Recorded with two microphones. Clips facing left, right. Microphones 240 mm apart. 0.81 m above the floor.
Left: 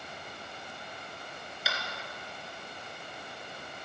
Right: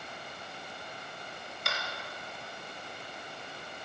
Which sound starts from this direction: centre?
Tapping, at 1.6 s.